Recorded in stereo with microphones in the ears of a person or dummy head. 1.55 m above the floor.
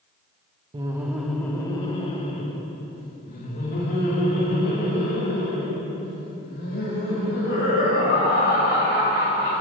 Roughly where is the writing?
I don't hear writing.